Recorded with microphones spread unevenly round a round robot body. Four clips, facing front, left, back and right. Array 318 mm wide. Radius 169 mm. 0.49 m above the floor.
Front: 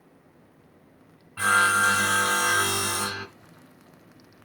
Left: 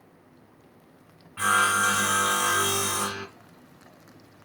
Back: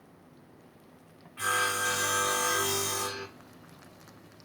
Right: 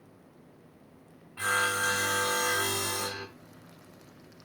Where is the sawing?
45° left, 3 m.